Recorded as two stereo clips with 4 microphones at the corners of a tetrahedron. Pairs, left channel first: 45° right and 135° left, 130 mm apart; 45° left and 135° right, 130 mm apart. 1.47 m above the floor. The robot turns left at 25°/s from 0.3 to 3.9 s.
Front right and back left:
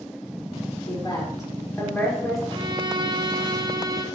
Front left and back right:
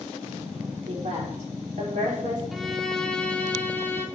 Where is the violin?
135° left, 1.0 m; by 4.0 s 100° left, 1.0 m.